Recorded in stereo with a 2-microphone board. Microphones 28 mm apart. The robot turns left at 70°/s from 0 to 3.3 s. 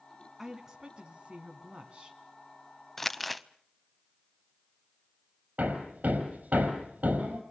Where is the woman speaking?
10° right, 1.9 m; by 2.2 s 135° right, 1.9 m.